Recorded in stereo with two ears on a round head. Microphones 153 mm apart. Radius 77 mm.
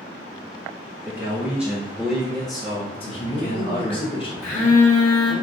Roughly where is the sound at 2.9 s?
Left.